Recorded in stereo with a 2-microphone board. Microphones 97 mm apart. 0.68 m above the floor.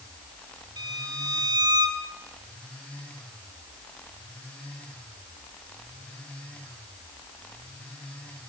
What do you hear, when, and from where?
0.8 s a violin: 45° right (ahead or behind), 2.5 m